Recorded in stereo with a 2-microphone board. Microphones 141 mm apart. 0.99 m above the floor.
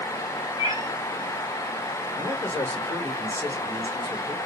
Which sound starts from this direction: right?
A cat meowing, at 0.6 s.